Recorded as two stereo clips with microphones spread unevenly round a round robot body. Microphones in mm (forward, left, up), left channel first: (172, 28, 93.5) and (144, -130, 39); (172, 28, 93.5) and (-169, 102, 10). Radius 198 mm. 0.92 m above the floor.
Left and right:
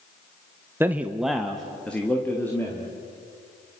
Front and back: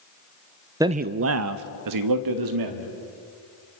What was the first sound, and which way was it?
A man speaking, 135° right.